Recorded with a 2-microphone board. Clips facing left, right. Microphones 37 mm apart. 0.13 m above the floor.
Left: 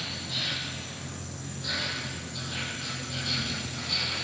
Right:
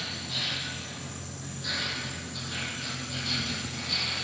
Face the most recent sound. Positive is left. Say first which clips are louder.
# even
turn(degrees=5)  # may be behind; listen again after turning